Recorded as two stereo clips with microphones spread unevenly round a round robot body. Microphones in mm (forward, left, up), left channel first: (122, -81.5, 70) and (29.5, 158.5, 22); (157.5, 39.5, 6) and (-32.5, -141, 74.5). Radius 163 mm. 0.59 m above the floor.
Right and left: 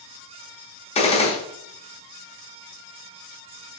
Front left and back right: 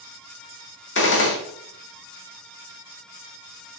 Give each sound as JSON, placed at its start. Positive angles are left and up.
{"t": 0.9, "sound": "a gunshot", "azimuth_deg": 0, "distance_m": 1.2}